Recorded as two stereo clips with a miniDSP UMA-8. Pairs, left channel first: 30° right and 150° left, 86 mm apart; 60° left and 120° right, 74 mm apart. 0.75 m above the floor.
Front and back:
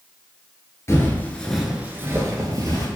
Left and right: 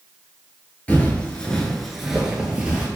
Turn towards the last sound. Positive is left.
turn(degrees=170)